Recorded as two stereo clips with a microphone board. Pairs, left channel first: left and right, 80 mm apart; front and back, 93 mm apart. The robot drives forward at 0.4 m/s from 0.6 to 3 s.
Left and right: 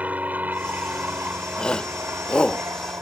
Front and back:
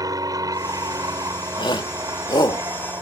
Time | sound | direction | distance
0.0 | an aircraft | 155° right | ?
1.6 | a shout | 15° left | ?